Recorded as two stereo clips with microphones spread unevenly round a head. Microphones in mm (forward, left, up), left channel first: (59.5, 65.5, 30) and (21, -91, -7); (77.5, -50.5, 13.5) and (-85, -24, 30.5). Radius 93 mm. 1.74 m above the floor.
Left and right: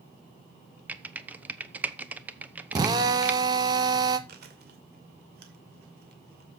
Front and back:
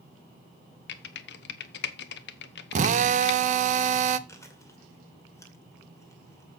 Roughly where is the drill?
Behind.